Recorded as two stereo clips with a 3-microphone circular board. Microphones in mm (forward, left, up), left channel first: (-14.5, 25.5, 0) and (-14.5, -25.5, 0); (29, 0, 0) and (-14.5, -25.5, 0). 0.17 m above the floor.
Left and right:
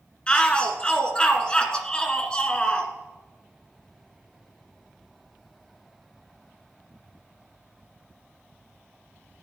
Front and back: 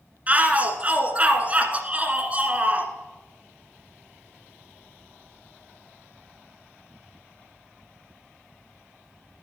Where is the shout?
155° left, 1.7 m.